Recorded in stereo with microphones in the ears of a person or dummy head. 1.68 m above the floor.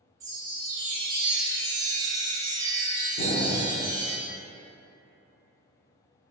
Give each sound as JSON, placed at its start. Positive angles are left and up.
{"t": 0.2, "sound": "a chime", "side_deg": -25, "distance_m": 0.5}
{"t": 3.2, "sound": "an explosion", "side_deg": 45, "distance_m": 0.5}